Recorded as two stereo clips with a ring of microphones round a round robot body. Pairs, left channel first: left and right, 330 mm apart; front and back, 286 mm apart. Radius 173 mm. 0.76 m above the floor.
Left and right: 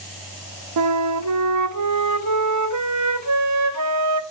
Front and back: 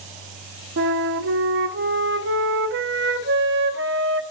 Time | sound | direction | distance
0.8 | a flute | 125° right | 0.8 m